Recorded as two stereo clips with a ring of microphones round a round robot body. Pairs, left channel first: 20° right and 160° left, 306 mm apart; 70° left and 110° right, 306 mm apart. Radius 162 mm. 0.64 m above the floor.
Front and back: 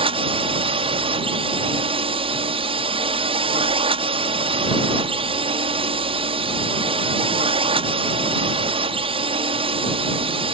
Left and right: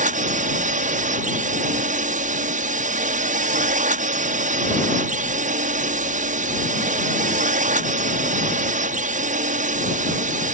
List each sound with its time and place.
0.0 s a drone: 150° right